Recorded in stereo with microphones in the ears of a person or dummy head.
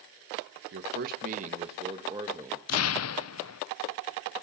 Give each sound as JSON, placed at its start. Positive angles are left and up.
{"t": 0.7, "sound": "a man speaking", "side_deg": -65, "distance_m": 1.4}
{"t": 2.7, "sound": "an explosion", "side_deg": 85, "distance_m": 0.8}